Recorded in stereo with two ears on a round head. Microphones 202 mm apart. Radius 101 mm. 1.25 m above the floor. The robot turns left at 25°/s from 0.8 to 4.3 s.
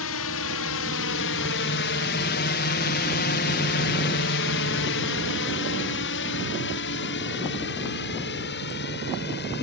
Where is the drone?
65° left (ahead or behind); by 9.6 s 45° left (ahead or behind).